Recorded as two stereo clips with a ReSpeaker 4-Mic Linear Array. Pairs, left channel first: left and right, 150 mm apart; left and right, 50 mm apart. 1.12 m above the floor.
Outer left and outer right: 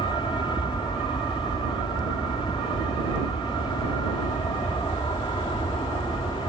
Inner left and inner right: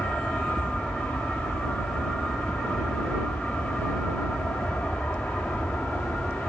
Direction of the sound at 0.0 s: 35° left (ahead or behind).